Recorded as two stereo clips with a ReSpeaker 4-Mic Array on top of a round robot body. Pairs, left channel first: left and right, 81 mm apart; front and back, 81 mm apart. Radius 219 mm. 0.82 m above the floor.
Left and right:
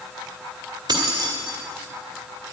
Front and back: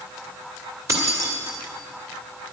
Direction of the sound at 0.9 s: 130° right.